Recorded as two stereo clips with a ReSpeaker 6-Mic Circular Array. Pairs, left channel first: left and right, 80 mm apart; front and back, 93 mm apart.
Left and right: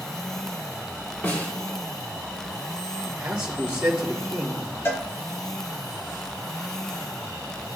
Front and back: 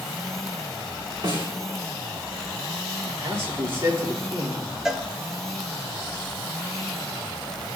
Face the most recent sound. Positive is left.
turn(degrees=100)